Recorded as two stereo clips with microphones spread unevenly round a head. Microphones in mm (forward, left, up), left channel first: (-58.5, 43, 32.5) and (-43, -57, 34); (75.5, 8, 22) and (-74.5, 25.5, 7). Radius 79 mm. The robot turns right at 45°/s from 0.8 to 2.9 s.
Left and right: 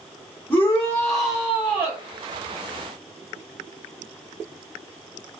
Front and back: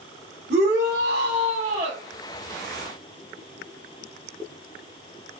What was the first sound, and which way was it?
A shout, 170° left.